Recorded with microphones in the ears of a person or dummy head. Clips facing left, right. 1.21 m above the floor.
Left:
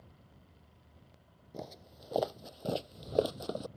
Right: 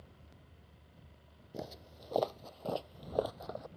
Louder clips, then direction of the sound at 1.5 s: Right 1 dB; 5° right (ahead or behind).